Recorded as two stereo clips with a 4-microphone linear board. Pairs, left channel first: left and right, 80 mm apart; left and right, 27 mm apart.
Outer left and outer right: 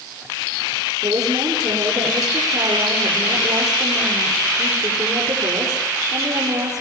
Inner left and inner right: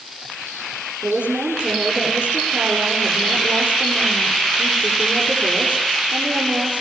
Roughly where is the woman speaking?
Right.